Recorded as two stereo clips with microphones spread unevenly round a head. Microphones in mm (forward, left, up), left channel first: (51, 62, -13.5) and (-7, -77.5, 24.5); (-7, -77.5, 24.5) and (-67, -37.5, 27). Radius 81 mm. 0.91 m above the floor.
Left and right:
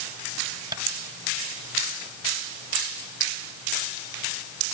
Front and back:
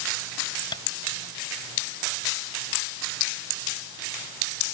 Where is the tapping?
50° right.